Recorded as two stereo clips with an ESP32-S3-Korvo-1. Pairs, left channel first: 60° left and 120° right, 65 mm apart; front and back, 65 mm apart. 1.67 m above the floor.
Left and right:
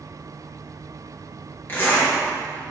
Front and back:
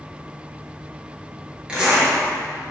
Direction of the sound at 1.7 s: 115° left.